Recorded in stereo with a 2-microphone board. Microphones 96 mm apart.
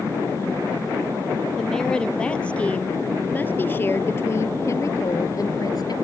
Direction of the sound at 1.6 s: 5° left (ahead or behind).